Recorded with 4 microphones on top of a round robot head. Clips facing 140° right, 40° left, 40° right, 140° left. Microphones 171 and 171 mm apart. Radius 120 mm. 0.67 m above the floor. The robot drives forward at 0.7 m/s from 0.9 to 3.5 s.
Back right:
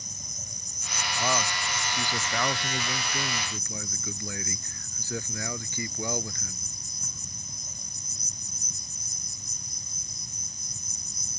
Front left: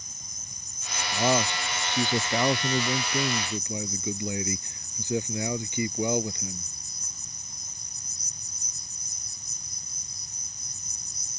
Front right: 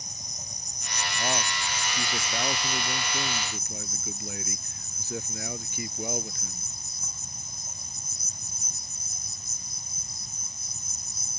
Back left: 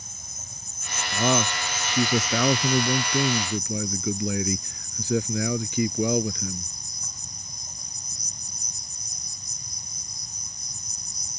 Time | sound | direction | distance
0.0 | an insect | 115° right | ?
1.1 | a man speaking | 110° left | ?